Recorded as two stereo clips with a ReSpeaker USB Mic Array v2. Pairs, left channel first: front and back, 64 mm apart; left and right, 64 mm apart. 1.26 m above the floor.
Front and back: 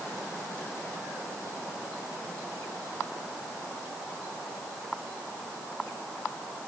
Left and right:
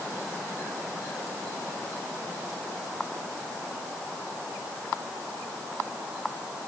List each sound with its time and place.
Only background noise.